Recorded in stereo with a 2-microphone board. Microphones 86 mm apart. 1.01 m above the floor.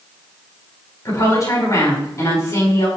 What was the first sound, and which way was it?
A woman speaking, 40° left (ahead or behind).